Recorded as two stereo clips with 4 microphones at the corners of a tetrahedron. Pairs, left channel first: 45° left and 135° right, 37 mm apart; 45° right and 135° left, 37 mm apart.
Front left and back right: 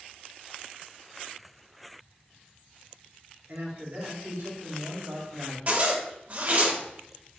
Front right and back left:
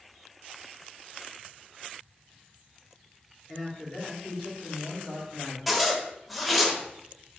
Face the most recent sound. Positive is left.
turn(degrees=-135)